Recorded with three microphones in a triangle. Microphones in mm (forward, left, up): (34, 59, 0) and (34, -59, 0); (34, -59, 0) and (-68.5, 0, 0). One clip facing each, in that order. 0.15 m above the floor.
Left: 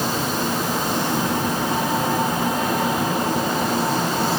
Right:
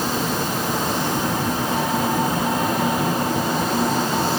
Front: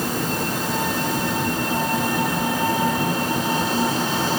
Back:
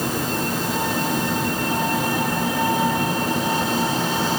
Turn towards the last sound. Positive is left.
No sound to turn to.